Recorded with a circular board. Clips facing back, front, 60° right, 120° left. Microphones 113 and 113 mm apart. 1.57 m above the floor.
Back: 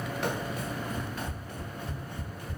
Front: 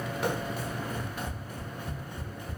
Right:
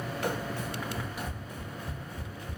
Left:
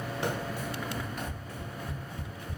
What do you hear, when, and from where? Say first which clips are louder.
0.2 s running footsteps: front 2 dB, even; 85° left, 1.7 m; by 2.6 s 65° right, 2 m